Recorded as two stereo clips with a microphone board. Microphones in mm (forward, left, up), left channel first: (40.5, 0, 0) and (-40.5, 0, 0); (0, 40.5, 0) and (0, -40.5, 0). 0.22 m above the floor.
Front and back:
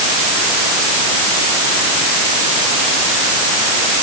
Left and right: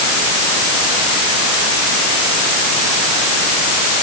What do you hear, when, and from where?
Only background noise.